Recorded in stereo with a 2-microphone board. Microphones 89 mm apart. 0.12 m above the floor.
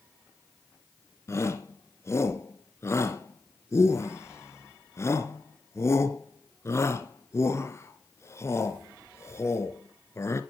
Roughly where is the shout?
Left.